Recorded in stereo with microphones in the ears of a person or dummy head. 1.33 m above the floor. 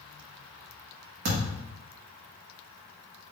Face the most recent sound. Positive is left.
turn(degrees=-55)  # may be behind; listen again after turning